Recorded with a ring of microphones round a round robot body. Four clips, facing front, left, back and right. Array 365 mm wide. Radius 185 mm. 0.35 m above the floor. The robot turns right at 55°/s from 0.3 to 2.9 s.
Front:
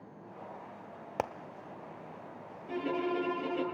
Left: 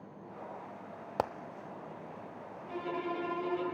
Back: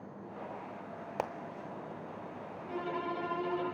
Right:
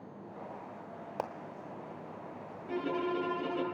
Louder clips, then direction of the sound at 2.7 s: Right 3 dB, front 4 dB; 45° right.